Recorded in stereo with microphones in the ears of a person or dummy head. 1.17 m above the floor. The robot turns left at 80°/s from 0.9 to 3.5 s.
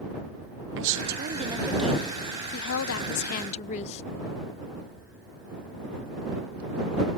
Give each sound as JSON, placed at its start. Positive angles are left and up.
{"t": 0.8, "sound": "a woman speaking", "azimuth_deg": -110}